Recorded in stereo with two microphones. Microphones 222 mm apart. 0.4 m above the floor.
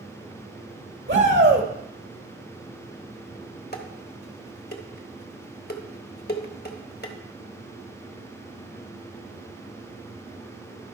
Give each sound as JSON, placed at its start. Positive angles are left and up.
{"t": 1.1, "sound": "a shout", "side_deg": -55, "distance_m": 1.9}
{"t": 3.7, "sound": "dishes clattering", "side_deg": 45, "distance_m": 1.0}